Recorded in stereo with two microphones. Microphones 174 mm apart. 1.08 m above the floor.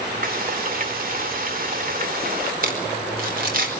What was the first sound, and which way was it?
Frying, 50° right (ahead or behind).